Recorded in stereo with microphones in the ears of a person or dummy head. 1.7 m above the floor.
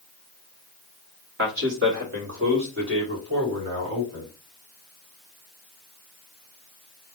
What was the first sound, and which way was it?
A man speaking, 60° right (ahead or behind).